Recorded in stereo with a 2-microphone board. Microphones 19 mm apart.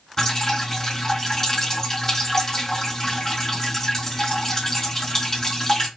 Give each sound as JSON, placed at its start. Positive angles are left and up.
{"t": 0.2, "sound": "dripping", "side_deg": 20, "distance_m": 2.5}